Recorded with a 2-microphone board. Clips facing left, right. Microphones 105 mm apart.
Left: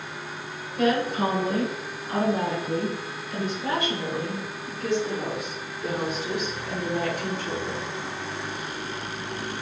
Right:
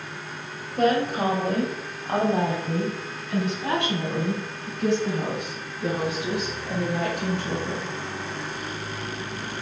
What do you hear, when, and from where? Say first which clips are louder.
0.8 s a woman speaking: right 1 dB; 45° right (ahead or behind), 1.9 m; by 7.9 s 75° right (ahead or behind), 5 m